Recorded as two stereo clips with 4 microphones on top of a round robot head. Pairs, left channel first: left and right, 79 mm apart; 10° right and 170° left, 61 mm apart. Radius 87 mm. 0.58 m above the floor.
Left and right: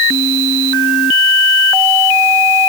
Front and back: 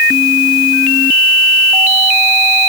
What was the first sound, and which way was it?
Only background noise.